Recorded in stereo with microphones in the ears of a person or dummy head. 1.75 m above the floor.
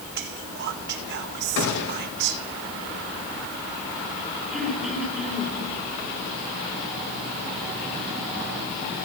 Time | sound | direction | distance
0.1 | whispering | 65° right (ahead or behind) | 1.1 m
1.6 | a gunshot | 65° left (ahead or behind) | 2 m
4.5 | throat clearing | 5° left (ahead or behind) | 5.5 m